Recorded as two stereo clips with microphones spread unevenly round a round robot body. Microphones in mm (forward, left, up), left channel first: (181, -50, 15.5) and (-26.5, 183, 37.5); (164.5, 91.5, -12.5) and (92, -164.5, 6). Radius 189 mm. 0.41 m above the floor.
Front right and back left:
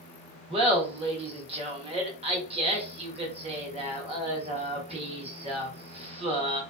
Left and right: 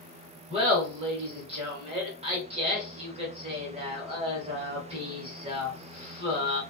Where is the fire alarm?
No fire alarm in this recording.